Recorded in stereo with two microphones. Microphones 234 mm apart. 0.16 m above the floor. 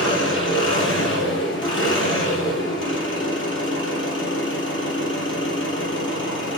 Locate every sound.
0.0 s an engine running: 55° left (ahead or behind), 2.5 m